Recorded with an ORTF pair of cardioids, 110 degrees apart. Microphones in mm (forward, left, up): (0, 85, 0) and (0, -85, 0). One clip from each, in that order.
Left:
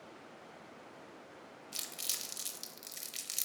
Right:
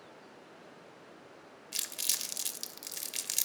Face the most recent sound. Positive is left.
turn(degrees=-25)